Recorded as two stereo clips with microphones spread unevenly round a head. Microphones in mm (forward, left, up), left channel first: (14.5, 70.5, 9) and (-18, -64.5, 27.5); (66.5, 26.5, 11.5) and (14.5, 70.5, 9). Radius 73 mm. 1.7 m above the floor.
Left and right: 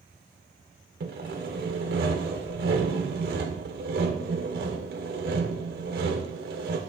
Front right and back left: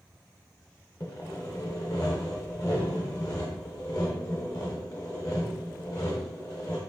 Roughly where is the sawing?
Right.